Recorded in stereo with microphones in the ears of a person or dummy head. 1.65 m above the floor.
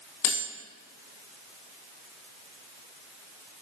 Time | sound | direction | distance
0.2 | cutlery clinking | 55° left (ahead or behind) | 1.4 m